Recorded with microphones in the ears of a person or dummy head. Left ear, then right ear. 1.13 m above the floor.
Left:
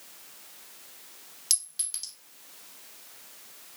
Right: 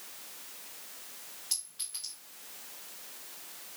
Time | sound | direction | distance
1.5 | a clink | 90° left | 1.5 m